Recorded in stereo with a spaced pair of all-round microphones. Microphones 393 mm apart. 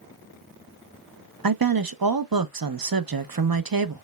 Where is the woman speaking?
60° right (ahead or behind), 0.6 m.